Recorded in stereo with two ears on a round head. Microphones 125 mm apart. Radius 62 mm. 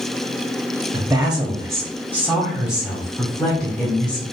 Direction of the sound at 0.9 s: 15° right (ahead or behind).